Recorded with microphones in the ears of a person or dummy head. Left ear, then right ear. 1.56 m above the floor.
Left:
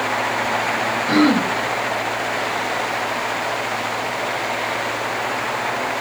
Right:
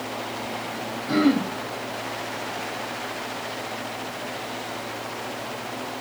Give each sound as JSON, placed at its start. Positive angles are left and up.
{"t": 1.1, "sound": "throat clearing", "side_deg": 30, "distance_m": 0.9}